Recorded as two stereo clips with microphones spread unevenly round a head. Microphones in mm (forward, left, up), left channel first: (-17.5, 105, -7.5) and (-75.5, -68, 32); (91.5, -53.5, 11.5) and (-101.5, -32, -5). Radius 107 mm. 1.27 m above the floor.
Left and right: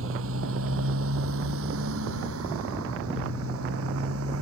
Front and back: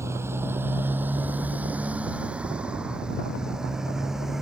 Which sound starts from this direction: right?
A motorcycle, at 0.0 s.